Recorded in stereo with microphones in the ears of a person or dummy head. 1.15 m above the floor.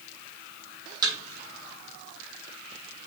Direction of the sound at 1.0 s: 30° right (ahead or behind).